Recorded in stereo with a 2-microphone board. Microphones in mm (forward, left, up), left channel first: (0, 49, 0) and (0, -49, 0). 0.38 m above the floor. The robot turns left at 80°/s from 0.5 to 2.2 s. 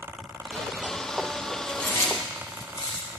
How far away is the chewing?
About 3 m.